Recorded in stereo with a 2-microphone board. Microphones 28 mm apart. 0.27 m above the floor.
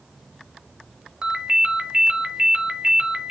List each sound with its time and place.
1.2 s a ringtone: 25° right (ahead or behind), 0.7 m